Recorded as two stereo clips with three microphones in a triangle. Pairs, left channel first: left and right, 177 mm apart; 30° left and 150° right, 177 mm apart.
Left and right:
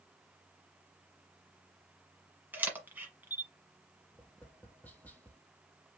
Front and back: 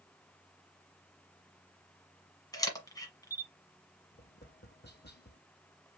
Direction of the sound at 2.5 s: 20° right.